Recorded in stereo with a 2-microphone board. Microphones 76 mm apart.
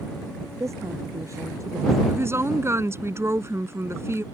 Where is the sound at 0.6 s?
40° right (ahead or behind).